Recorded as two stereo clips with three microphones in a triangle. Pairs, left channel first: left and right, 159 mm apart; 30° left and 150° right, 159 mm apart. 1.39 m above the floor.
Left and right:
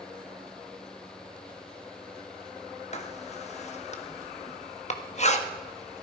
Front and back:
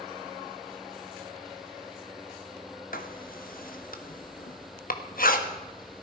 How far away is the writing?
About 1.4 m.